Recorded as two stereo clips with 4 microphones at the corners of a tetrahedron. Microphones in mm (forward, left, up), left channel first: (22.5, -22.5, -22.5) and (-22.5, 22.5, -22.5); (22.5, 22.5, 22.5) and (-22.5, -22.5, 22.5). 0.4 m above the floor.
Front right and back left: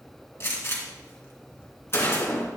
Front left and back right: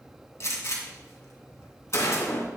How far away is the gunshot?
About 2.5 m.